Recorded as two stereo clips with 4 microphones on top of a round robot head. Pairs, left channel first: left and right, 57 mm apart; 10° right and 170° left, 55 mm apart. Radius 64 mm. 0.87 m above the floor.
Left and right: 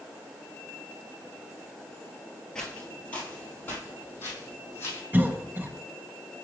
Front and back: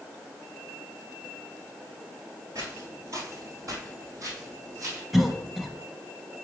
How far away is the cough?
About 0.9 m.